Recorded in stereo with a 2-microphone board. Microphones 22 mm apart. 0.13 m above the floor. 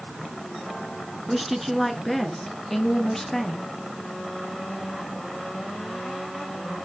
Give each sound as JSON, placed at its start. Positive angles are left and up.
{"t": 1.3, "sound": "a woman speaking", "side_deg": -10, "distance_m": 1.2}